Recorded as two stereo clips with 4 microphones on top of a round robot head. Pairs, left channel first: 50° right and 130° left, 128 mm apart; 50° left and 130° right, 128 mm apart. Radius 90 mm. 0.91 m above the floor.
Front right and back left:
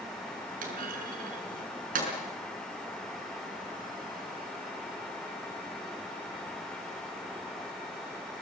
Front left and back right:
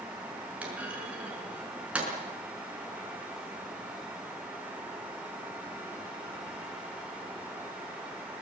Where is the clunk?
150° left, 5.5 m.